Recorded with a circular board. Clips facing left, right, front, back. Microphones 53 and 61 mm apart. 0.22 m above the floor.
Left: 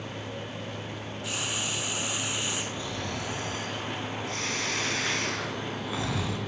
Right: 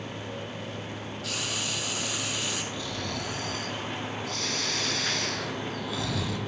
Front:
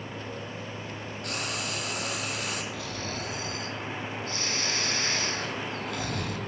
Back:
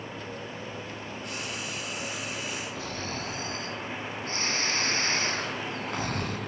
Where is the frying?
20° left, 2 m.